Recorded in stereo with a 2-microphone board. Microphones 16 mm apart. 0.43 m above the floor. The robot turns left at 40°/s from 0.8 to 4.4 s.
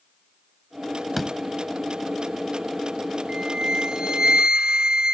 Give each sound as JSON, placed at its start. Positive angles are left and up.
{"t": 1.2, "sound": "a door slam", "side_deg": -5}
{"t": 3.3, "sound": "a flute", "azimuth_deg": -65}